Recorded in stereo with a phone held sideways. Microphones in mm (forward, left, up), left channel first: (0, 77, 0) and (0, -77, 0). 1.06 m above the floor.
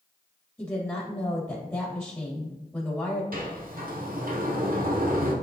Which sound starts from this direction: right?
A sliding door, at 3.3 s.